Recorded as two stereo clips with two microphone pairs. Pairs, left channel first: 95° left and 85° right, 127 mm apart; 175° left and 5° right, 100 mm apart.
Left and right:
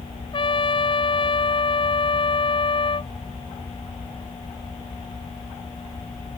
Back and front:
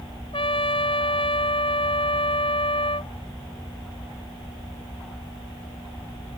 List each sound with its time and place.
0.3 s a trumpet: 145° left